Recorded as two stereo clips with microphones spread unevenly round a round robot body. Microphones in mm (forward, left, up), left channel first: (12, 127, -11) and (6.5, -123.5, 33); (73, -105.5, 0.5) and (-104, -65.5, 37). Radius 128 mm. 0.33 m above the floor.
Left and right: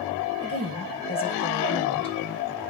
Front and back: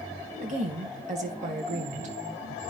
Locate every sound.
0.4 s a woman speaking: 125° left, 1.6 m